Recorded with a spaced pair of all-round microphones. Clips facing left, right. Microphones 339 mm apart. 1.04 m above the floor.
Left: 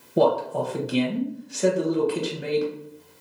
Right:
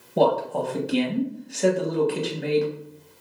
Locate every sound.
0.2 s a man speaking: 5° left (ahead or behind), 0.9 m